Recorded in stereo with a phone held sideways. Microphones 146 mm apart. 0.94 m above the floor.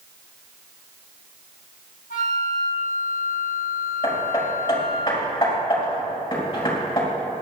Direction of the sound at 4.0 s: 30° left (ahead or behind).